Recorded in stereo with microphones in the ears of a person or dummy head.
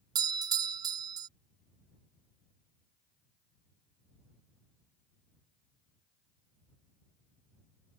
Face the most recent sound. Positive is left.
turn(degrees=-20)  # may be behind; listen again after turning